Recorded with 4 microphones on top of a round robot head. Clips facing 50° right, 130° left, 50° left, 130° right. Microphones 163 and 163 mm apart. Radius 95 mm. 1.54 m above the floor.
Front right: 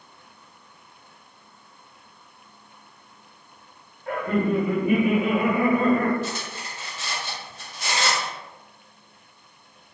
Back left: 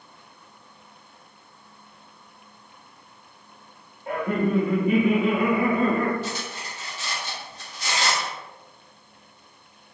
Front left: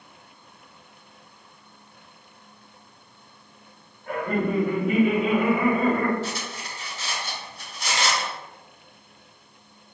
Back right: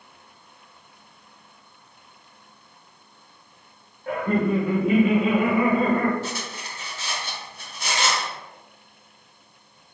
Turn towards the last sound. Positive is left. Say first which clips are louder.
# even, even
turn(degrees=-90)